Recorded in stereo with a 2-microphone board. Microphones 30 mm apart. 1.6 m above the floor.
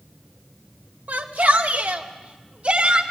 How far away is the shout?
About 2.5 m.